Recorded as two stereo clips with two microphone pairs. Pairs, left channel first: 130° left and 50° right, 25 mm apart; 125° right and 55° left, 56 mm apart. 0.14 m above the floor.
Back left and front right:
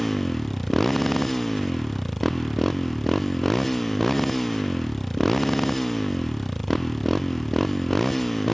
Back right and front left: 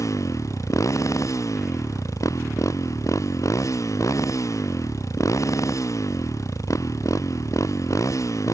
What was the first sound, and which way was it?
A motorcycle, 150° right.